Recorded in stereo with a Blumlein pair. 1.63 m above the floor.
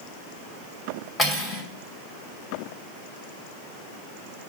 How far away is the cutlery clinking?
About 2.5 m.